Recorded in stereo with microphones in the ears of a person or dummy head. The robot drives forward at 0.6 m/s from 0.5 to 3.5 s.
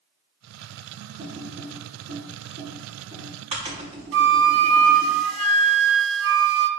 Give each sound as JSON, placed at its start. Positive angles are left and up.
{"t": 1.2, "sound": "typing on a keyboard", "side_deg": -40, "distance_m": 4.0}
{"t": 4.1, "sound": "a flute", "side_deg": -75, "distance_m": 1.1}